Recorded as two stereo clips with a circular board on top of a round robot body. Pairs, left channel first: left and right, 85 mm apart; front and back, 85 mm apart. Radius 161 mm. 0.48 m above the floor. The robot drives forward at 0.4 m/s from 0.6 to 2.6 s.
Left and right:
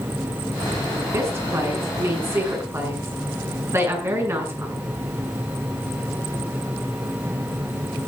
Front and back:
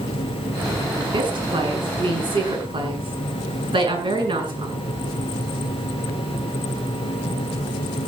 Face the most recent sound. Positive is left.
turn(degrees=-155)